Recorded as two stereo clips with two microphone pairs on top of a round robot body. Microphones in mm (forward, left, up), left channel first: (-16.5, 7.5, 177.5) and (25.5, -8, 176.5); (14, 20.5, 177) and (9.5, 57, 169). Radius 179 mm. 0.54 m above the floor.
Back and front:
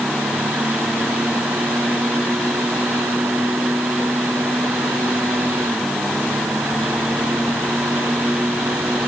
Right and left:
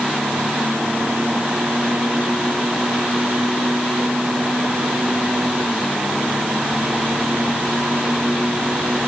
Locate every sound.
Only background noise.